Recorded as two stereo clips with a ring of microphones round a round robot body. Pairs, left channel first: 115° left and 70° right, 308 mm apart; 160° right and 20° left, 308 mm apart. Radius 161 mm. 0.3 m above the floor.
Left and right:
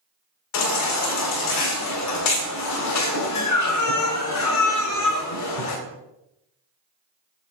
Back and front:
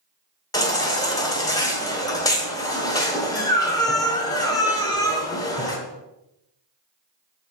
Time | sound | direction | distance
0.5 | a baby crying | 125° left | 1.5 m